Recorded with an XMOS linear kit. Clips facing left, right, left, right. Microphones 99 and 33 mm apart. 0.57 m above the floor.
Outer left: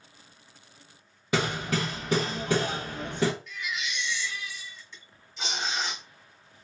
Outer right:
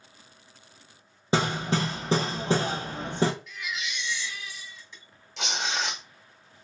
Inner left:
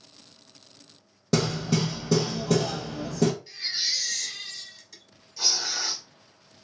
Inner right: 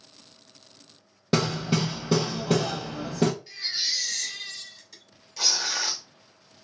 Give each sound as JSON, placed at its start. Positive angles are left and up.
{"t": 1.3, "sound": "hammering", "side_deg": -30, "distance_m": 0.9}
{"t": 3.5, "sound": "a baby crying", "side_deg": -5, "distance_m": 1.6}
{"t": 5.4, "sound": "tearing paper", "side_deg": -75, "distance_m": 0.8}